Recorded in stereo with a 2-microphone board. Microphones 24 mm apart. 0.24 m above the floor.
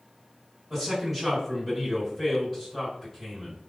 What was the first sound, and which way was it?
A man speaking, centre (ahead or behind).